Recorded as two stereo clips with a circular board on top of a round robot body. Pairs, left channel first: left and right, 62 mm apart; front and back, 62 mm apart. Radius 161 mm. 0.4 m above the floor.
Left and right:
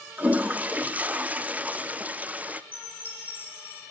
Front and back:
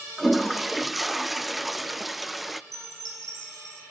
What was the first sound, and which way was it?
A toilet flushing, 95° right.